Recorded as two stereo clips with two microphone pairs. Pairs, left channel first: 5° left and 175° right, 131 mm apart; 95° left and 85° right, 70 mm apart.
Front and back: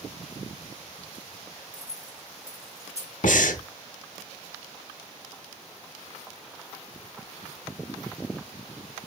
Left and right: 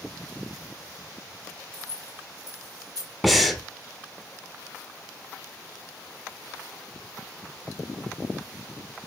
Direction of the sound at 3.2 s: 5° left.